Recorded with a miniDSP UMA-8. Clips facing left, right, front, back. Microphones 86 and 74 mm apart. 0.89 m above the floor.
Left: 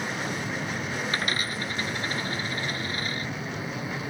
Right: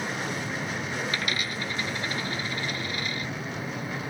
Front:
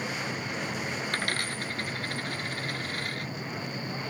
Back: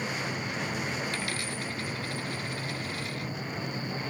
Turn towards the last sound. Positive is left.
turn(degrees=35)